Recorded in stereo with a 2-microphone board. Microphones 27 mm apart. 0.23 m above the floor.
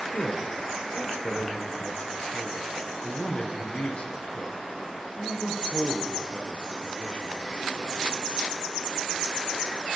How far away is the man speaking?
About 5.5 m.